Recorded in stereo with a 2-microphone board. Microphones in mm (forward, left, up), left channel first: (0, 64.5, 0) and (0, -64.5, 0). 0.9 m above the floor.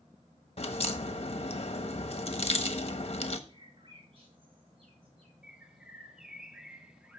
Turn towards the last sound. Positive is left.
turn(degrees=-5)  # may be behind; listen again after turning